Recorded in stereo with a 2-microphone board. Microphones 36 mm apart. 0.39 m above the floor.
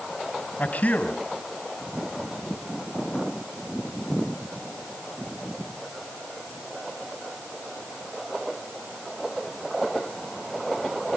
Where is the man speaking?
45° left (ahead or behind), 3 m.